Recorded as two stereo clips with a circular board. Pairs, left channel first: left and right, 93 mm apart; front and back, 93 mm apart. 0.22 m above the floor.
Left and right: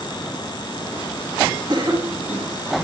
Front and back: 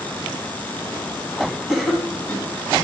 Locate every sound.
1.7 s a cough: 95° right, 2 m